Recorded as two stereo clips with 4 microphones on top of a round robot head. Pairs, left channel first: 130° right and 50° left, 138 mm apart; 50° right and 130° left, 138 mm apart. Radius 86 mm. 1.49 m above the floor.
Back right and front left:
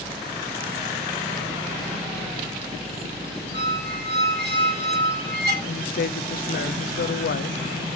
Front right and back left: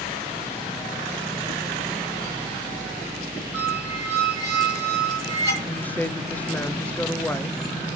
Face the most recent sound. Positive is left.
turn(degrees=-130)